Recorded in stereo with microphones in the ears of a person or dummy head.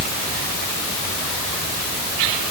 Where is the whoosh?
No whoosh in this recording.